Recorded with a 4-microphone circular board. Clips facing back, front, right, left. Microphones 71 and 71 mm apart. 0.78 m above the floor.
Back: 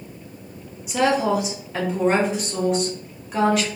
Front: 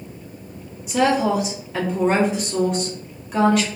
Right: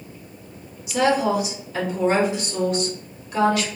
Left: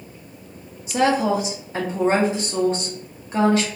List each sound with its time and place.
0.9 s a woman speaking: 90° left, 1.0 m